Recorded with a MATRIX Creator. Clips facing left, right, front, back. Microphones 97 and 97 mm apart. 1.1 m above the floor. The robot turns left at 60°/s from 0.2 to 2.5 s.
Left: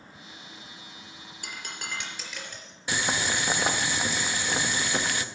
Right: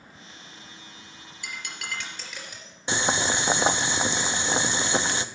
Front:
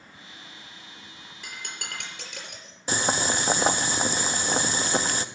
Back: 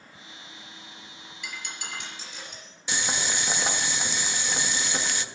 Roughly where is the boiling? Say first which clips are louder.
Right 3 dB, front 5 dB; ahead right.